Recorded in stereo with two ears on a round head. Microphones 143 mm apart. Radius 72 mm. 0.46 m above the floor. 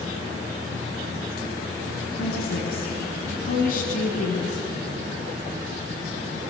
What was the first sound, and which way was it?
A woman speaking, 70° left (ahead or behind).